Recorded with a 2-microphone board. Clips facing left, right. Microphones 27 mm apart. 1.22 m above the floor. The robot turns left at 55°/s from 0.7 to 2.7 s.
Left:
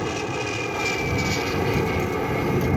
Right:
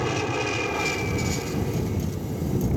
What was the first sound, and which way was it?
An aircraft, 175° right.